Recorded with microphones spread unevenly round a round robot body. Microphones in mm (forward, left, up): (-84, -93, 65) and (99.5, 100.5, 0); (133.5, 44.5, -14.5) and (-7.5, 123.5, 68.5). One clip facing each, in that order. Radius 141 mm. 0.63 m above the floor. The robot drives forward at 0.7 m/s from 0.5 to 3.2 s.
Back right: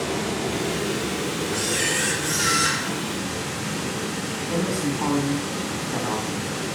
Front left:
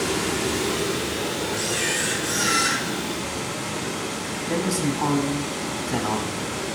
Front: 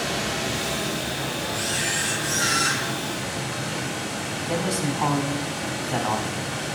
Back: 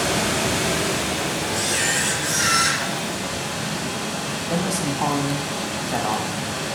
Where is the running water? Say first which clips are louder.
Front left 1 dB, back 5 dB; 105° left, 0.7 m; by 6.8 s 160° left, 2 m.